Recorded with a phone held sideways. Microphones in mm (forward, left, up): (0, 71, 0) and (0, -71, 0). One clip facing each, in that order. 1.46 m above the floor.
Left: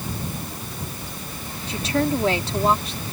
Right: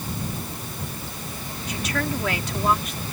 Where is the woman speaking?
30° left (ahead or behind).